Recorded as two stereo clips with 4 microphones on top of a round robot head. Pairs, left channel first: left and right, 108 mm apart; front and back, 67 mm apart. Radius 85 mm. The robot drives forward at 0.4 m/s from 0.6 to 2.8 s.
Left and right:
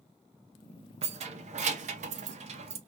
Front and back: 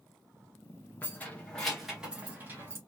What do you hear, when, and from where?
1.0 s keys jangling: 65° right, 0.8 m; by 2.8 s 120° right, 0.8 m